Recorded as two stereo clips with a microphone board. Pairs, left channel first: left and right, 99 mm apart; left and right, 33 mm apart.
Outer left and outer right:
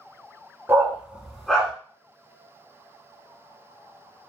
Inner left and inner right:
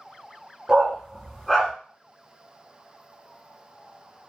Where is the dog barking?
25° right (ahead or behind), 0.9 m; by 1.7 s 10° left (ahead or behind), 1.2 m.